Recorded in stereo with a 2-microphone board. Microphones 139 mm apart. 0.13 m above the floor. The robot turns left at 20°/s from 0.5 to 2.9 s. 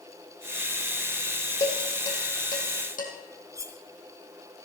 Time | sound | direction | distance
1.6 | dishes clattering | 55° left (ahead or behind) | 4 m
3.5 | cutlery clinking | 20° right (ahead or behind) | 1.0 m